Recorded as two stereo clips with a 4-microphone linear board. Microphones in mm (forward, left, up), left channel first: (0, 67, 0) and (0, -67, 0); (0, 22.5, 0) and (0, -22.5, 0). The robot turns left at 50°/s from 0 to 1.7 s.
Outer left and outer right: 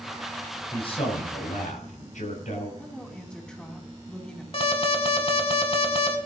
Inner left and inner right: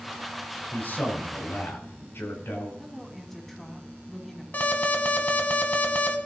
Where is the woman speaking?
5° left (ahead or behind), 2.5 m.